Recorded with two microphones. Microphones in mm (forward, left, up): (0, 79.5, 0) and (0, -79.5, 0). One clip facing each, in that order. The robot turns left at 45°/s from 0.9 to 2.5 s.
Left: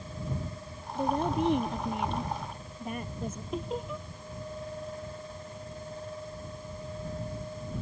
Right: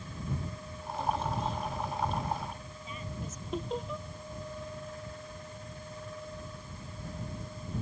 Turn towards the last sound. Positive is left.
turn(degrees=5)  # may be behind; listen again after turning